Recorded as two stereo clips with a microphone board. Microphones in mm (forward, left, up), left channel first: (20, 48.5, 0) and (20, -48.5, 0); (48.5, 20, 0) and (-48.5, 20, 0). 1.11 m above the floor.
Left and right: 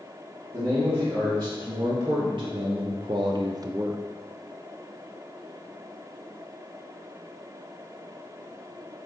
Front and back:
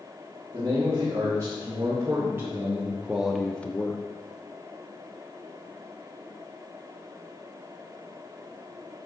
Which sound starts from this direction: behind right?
A man speaking, at 0.5 s.